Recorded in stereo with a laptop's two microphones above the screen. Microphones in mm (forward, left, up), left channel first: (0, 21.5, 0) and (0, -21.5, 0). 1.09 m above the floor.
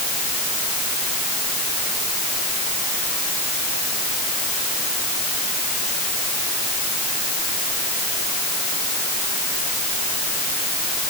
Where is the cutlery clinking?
I don't hear cutlery clinking.